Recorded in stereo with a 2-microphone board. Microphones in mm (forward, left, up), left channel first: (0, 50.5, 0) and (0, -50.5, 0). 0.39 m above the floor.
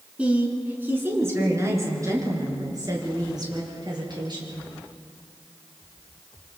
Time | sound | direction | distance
0.2 | a woman speaking | 15° right (ahead or behind) | 4.5 m